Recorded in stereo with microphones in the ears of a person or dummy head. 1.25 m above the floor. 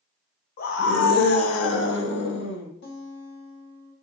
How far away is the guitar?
About 0.7 m.